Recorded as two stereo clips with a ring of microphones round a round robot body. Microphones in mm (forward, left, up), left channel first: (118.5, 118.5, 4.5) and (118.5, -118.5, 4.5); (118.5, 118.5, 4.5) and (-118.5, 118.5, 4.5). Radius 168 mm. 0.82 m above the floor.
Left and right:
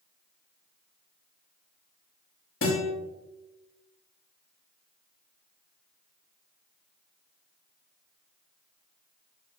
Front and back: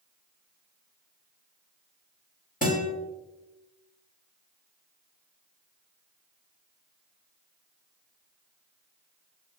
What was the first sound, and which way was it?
A guitar, 55° left.